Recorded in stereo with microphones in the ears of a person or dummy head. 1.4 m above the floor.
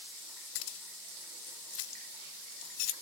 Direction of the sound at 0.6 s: 65° left (ahead or behind).